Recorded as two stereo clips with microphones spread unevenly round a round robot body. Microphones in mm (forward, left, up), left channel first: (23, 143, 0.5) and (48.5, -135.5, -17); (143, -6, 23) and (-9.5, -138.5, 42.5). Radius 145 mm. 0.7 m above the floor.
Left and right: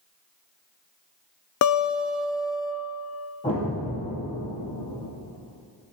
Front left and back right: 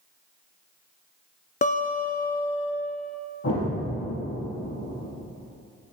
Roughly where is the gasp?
I don't hear a gasp.